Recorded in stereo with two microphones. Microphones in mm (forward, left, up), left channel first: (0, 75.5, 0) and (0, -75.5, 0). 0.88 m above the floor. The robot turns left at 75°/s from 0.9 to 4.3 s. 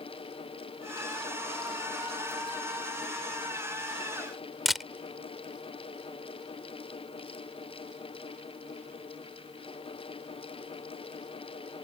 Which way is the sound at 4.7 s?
Centre (ahead or behind).